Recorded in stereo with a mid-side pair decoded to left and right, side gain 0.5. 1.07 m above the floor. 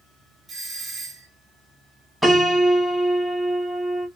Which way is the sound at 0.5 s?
30° right.